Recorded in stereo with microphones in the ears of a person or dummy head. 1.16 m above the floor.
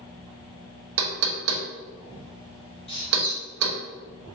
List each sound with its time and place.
1.0 s knocking: 80° right, 0.7 m
2.9 s a squeak: 30° left (ahead or behind), 0.9 m